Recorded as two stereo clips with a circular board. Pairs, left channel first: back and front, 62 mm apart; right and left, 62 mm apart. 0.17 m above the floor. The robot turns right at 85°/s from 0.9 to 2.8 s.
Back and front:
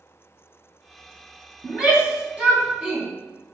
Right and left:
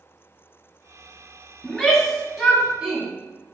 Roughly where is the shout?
Ahead right.